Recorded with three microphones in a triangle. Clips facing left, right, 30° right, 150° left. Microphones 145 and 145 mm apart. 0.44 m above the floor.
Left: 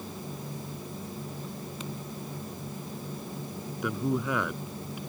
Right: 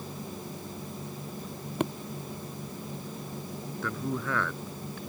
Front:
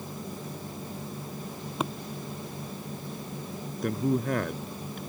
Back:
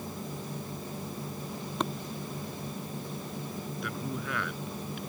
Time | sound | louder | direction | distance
1.8 | tapping | right 12 dB, front 1 dB | 115° right | ?
3.8 | a man speaking | left 4 dB, front 12 dB | 15° left | ?